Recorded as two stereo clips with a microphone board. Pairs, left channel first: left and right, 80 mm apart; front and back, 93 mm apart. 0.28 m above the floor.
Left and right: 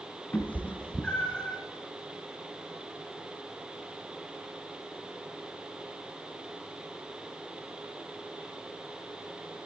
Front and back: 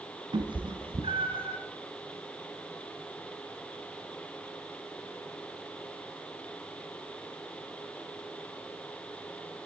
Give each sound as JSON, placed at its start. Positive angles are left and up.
{"t": 0.3, "sound": "a cat meowing", "azimuth_deg": 155, "distance_m": 1.5}